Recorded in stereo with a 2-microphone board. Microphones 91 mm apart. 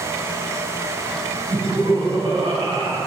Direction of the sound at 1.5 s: 70° right (ahead or behind).